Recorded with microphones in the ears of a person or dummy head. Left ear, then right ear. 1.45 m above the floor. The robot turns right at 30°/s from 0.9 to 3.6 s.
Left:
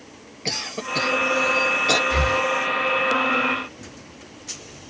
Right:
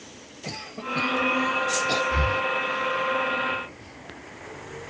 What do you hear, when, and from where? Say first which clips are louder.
0.5 s a cough: left 6 dB; 80° left, 1.1 m; by 2.0 s 55° left (ahead or behind), 1.1 m
2.1 s breathing: left 4 dB; 55° left (ahead or behind), 1.1 m; by 2.4 s 60° left (ahead or behind), 1.1 m